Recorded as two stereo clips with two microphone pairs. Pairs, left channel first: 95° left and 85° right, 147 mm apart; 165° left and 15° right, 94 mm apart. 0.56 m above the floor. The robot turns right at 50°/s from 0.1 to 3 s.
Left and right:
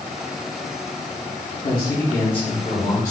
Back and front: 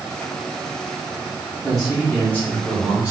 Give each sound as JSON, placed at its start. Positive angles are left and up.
{"t": 1.6, "sound": "a man speaking", "azimuth_deg": 75, "distance_m": 1.1}